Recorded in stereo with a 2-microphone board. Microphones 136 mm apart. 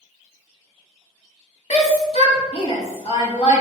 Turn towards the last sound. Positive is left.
turn(degrees=50)  # may be behind; listen again after turning